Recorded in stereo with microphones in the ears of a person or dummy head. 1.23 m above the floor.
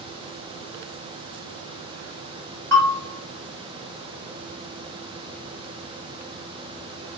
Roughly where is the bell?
Centre.